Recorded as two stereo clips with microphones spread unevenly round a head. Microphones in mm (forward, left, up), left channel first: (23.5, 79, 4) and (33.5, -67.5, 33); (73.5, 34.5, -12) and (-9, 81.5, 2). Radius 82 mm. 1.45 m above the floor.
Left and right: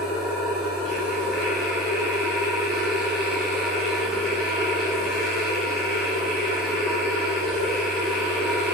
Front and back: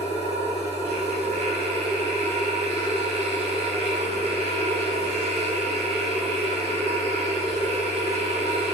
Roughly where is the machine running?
Behind.